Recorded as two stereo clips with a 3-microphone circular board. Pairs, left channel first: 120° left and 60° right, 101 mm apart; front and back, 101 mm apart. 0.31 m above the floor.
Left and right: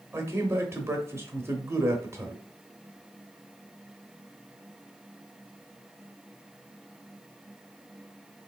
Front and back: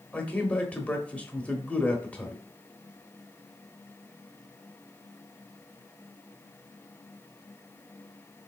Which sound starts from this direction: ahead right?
A man speaking, at 0.1 s.